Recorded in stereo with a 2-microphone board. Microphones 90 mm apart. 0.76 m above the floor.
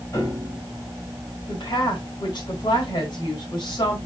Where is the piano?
40° left (ahead or behind), 4.5 m.